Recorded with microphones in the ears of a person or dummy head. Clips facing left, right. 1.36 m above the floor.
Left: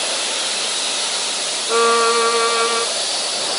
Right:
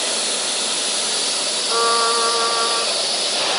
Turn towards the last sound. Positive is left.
turn(degrees=35)  # may be behind; listen again after turning